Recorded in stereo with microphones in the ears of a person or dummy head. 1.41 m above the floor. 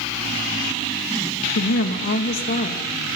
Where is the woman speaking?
60° left (ahead or behind), 2 m; by 2.9 s 40° left (ahead or behind), 2.5 m.